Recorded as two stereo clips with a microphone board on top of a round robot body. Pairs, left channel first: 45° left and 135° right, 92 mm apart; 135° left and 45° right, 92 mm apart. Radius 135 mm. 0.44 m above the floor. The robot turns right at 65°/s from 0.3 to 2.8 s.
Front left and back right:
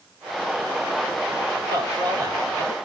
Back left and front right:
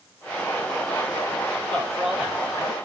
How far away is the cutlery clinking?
I don't hear cutlery clinking.